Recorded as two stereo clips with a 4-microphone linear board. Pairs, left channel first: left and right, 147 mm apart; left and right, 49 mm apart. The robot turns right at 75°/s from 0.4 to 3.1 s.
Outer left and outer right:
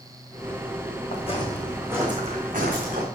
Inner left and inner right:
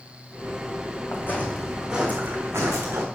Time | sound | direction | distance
1.1 | footsteps | 55° left (ahead or behind) | 2 m